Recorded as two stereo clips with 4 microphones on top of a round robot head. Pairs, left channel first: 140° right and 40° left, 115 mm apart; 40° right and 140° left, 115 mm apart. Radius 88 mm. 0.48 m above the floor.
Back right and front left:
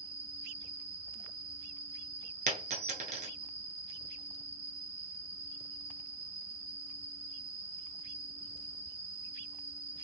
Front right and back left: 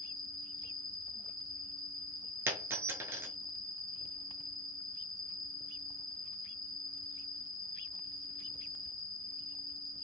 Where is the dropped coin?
70° left, 0.6 m.